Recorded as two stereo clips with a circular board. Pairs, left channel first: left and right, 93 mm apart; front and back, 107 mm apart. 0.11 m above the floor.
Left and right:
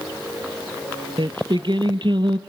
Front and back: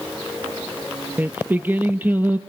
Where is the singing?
110° right, 0.7 m.